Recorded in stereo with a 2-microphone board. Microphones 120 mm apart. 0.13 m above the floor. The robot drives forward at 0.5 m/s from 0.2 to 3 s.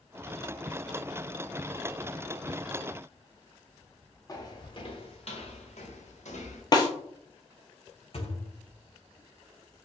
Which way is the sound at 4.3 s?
30° left (ahead or behind).